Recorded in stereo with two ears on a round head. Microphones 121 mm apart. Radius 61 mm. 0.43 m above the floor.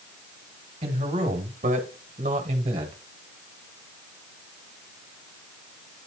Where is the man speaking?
45° right (ahead or behind), 1.9 m.